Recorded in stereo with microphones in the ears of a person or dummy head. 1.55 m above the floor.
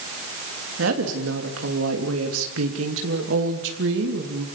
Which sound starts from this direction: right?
A woman speaking, at 0.8 s.